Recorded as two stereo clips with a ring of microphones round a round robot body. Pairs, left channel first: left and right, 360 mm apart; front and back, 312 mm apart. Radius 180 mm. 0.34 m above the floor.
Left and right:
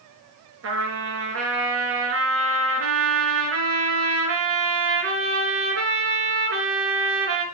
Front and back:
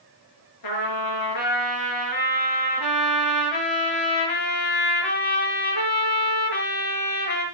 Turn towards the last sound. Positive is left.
turn(degrees=-35)